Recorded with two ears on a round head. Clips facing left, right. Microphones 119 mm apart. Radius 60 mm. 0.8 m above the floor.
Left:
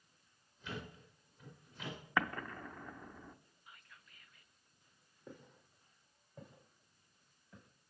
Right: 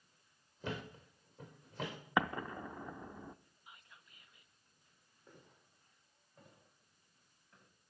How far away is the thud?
About 6.5 m.